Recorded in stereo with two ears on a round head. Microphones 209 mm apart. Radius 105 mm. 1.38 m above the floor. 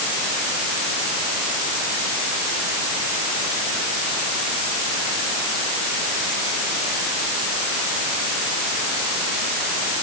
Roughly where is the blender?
No blender in this recording.